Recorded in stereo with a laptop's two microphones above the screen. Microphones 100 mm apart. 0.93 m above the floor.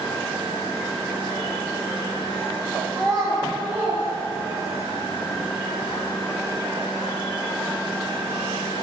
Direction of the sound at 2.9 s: 10° left (ahead or behind).